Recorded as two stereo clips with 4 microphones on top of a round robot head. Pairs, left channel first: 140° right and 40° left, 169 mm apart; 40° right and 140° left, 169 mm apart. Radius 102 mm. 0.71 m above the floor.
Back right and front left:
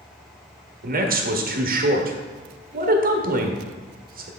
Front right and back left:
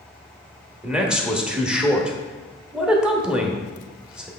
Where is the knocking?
No knocking in this recording.